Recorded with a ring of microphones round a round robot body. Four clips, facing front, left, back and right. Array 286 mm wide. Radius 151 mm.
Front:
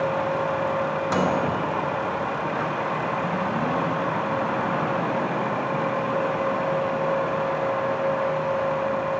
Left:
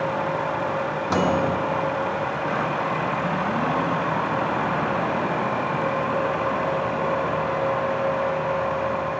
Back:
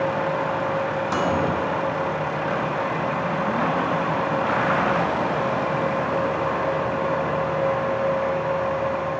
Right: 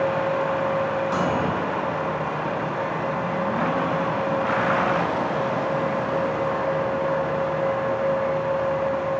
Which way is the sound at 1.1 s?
70° left.